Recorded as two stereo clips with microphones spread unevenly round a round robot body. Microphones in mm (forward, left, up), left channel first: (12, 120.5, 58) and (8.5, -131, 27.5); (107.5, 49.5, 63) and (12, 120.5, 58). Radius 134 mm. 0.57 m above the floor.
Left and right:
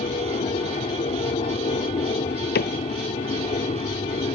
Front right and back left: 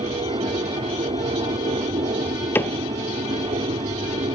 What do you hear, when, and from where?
0.0 s an aircraft: 150° left
2.5 s a cupboard door: 35° left